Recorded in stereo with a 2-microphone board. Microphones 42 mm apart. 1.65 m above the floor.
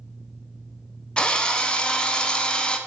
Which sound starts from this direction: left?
A drill, at 1.2 s.